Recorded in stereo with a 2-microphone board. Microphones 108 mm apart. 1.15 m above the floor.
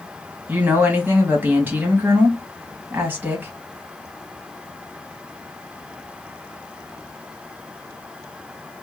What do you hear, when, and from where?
0.5 s a woman speaking: 15° right (ahead or behind), 1.5 m